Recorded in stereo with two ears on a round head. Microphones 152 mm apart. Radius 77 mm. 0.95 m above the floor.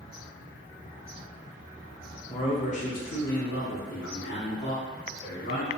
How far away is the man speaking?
About 0.8 m.